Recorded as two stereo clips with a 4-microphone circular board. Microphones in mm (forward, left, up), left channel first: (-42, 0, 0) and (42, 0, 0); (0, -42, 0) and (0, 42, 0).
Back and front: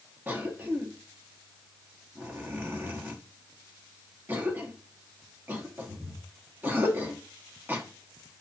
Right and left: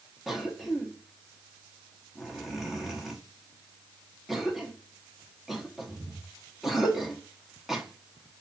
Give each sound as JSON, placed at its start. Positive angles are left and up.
{"t": 0.3, "sound": "a cough", "azimuth_deg": 10, "distance_m": 0.7}